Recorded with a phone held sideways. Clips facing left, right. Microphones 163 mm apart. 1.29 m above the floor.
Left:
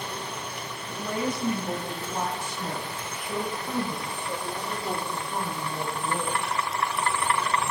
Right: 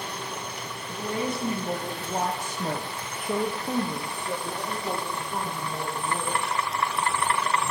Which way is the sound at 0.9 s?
20° right (ahead or behind).